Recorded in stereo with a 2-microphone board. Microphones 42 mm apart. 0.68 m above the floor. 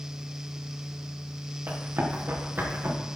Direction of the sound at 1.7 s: 50° right (ahead or behind).